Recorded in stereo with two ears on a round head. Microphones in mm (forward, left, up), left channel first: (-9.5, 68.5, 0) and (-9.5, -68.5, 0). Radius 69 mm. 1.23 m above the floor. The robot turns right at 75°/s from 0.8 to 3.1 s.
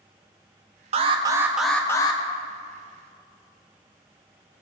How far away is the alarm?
About 0.7 m.